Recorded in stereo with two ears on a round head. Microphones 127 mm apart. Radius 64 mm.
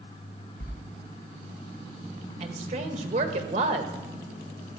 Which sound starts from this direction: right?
A woman speaking, at 2.4 s.